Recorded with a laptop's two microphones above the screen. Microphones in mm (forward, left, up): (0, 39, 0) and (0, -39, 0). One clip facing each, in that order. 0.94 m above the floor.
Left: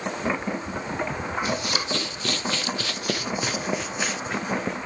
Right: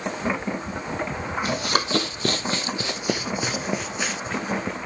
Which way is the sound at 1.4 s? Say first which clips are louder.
Right 2 dB; 45° right (ahead or behind).